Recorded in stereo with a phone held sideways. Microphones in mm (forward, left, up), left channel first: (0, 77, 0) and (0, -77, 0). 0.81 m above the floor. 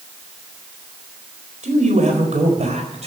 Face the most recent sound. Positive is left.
turn(degrees=-50)  # may be behind; listen again after turning